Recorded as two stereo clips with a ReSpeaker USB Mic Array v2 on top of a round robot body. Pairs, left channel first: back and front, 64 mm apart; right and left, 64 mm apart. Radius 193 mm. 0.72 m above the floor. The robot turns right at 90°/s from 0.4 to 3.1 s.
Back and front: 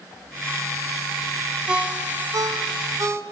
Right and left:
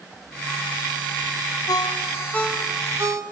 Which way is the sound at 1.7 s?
80° right.